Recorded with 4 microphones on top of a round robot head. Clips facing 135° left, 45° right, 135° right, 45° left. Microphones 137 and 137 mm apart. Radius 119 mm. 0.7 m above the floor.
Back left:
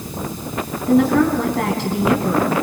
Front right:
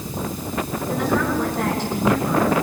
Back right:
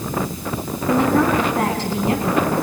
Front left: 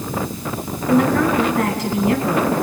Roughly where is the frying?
I don't hear frying.